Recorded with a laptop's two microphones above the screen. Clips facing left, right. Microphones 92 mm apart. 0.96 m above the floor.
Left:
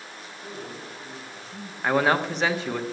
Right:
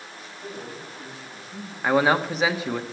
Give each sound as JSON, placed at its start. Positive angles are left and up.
{"t": 0.4, "sound": "a man speaking", "side_deg": -15, "distance_m": 7.5}
{"t": 1.8, "sound": "a man speaking", "side_deg": -5, "distance_m": 1.1}